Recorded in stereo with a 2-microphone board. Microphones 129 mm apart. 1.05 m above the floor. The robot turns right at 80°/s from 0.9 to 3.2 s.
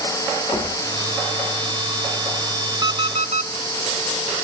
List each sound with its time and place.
0.5 s knocking: 30° left (ahead or behind), 2.5 m
2.8 s an alarm clock: 145° right, 0.7 m; by 3.5 s 115° right, 0.7 m